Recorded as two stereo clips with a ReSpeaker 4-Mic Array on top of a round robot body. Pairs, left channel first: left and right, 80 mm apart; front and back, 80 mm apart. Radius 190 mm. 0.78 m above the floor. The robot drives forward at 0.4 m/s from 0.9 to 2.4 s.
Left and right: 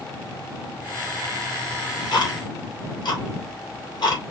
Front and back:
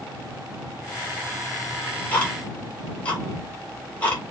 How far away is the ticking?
About 2.5 m.